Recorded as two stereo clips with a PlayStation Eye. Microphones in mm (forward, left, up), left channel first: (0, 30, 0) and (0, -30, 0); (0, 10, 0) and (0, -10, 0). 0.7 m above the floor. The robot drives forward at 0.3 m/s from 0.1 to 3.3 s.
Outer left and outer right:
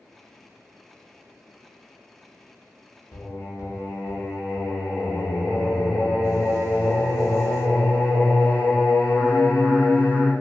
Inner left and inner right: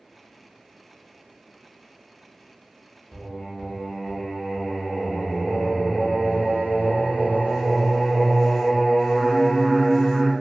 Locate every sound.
3.1 s singing: 75° left (ahead or behind), 0.7 m; by 10.3 s 80° left, 0.7 m